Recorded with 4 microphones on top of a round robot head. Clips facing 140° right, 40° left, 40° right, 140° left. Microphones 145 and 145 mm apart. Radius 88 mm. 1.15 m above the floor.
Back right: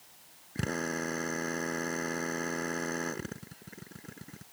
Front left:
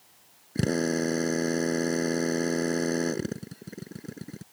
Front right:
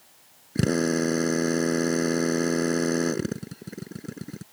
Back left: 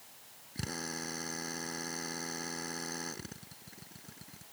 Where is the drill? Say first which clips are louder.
Front left 8 dB, front right 19 dB; 15° right.